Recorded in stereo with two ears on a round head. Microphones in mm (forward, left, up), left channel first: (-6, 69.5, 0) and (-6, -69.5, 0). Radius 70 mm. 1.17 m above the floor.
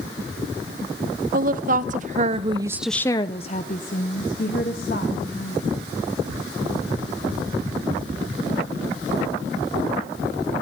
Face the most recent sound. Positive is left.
turn(degrees=60)  # may be behind; listen again after turning